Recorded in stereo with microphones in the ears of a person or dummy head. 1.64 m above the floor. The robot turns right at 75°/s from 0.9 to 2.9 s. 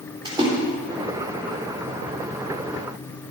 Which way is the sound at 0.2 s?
30° right (ahead or behind).